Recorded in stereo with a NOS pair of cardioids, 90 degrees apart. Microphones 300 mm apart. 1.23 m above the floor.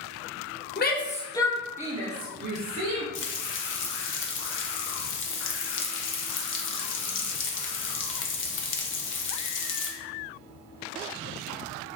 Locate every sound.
0.8 s a shout: 35° left, 0.8 m; by 3.0 s 60° right, 0.9 m
3.1 s frying: 45° left, 0.5 m